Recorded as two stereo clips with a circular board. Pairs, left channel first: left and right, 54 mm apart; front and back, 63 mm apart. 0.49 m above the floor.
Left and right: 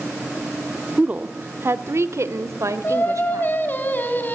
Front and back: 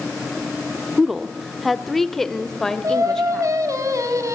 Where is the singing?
145° left, 2.5 m.